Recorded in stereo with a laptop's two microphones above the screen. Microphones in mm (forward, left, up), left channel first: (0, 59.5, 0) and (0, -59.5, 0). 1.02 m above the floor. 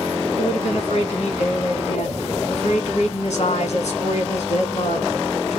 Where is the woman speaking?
65° left (ahead or behind), 1.4 m.